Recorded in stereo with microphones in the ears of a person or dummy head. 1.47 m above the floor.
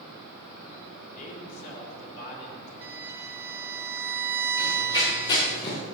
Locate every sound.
1.1 s a man speaking: 45° left (ahead or behind), 5 m
2.8 s a violin: 10° right (ahead or behind), 1.2 m
4.6 s running footsteps: 25° left (ahead or behind), 5.5 m; by 5.8 s 30° left (ahead or behind), 5 m